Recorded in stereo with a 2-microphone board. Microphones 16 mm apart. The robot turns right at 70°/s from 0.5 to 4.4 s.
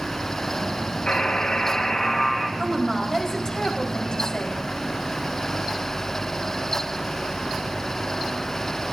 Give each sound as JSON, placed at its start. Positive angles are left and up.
{"t": 1.1, "sound": "a buzzer", "azimuth_deg": 70, "distance_m": 4.5}
{"t": 2.6, "sound": "a woman speaking", "azimuth_deg": -25, "distance_m": 4.5}